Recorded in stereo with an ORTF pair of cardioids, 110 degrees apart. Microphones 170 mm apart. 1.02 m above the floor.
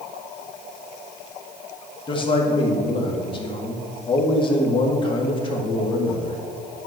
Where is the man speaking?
30° left, 1.9 m.